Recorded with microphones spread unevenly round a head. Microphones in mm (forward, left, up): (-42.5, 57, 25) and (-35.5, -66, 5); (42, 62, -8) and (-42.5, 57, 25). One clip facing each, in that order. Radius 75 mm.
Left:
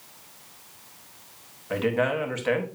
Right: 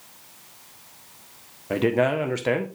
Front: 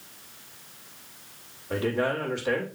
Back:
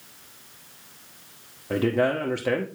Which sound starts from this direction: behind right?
A man speaking, at 1.7 s.